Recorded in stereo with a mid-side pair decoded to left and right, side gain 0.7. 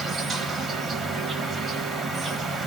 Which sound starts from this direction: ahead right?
An insect, at 0.0 s.